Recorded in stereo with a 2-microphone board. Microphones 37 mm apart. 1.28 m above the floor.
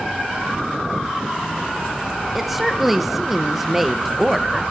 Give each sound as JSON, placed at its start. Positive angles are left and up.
{"t": 2.4, "sound": "a woman speaking", "side_deg": -5, "distance_m": 1.1}